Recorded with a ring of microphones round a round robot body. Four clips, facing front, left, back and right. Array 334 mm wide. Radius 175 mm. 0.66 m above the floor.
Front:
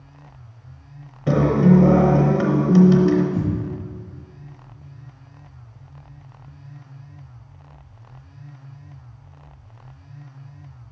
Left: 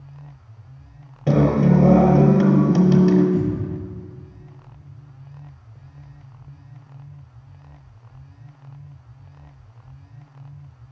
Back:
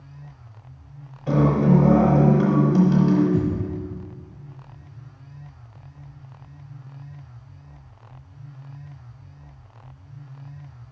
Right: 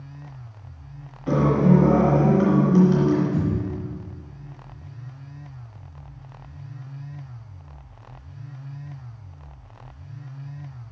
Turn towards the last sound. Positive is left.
turn(degrees=175)